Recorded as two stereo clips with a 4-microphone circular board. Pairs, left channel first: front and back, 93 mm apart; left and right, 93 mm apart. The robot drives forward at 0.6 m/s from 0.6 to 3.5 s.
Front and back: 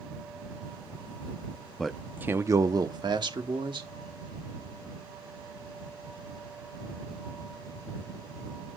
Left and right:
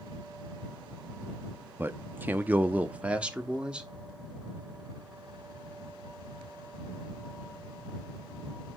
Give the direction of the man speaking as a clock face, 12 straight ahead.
3 o'clock.